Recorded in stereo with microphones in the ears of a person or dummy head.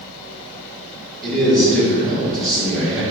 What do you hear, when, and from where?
1.2 s a man speaking: centre (ahead or behind), 1.6 m